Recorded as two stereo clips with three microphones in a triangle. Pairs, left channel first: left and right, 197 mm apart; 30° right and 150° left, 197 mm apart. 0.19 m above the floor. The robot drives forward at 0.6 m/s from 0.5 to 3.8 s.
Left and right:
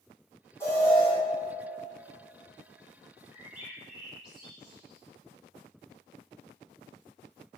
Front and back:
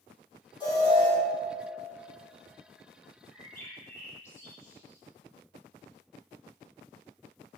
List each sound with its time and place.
0.6 s an alarm: 20° left, 2.0 m; by 1.1 s 25° left, 1.8 m
3.3 s a bird: 35° left, 1.7 m; by 5.0 s 40° left, 1.5 m